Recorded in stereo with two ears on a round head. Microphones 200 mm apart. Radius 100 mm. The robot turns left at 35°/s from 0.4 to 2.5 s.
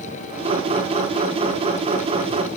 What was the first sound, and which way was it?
Only background noise.